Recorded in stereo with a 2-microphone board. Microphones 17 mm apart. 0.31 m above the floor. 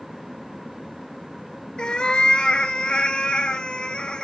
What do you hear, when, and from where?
1.8 s a cat meowing: 65° left (ahead or behind), 0.7 m